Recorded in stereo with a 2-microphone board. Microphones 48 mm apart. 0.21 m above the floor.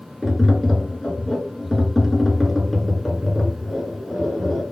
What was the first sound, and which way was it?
Tapping, centre (ahead or behind).